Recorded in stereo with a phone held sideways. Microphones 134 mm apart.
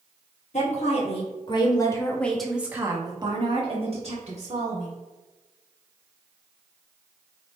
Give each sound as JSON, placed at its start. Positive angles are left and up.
{"t": 0.5, "sound": "a woman speaking", "side_deg": 55, "distance_m": 1.2}